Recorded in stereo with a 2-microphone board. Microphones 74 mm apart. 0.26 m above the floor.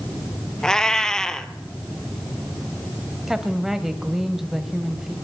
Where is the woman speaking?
5° right (ahead or behind), 1.1 m.